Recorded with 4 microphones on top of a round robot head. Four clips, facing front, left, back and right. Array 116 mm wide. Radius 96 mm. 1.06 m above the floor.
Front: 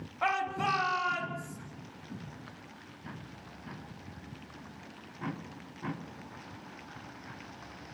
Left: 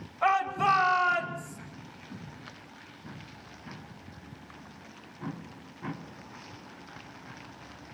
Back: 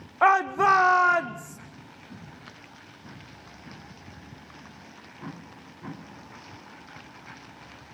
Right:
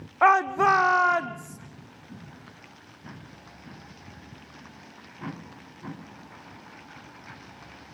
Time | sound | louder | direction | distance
0.2 | a shout | right 6 dB, back 11 dB | 130° right | 2.5 m